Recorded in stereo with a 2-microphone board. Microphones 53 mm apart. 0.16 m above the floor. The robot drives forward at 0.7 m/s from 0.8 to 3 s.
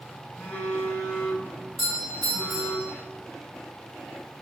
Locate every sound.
0.4 s a phone buzzing: 30° left (ahead or behind), 1.0 m; by 2.8 s 10° left (ahead or behind), 2 m
1.8 s a doorbell: 10° left (ahead or behind), 1.6 m